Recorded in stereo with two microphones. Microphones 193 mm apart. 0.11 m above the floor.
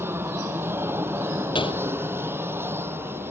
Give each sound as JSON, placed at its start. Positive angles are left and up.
{"t": 0.0, "sound": "an aircraft", "side_deg": -10}
{"t": 1.6, "sound": "a gunshot", "side_deg": 25}